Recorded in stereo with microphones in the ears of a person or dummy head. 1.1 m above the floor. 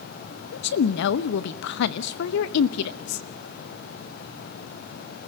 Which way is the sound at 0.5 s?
70° left (ahead or behind).